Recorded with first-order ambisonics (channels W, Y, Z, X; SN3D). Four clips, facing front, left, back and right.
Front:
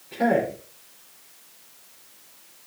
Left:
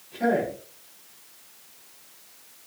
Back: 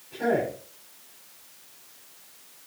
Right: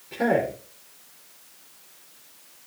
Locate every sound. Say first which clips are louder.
0.1 s a man speaking: right 1 dB, front 3 dB; 55° right, 4 m